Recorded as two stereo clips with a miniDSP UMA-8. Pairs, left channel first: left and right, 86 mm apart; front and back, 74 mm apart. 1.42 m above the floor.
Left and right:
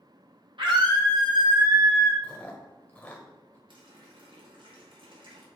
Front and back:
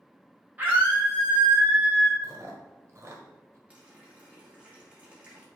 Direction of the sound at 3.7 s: 105° right.